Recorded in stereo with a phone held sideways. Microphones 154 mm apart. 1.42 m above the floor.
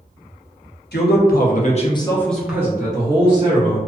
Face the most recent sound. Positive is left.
turn(degrees=-40)  # may be behind; listen again after turning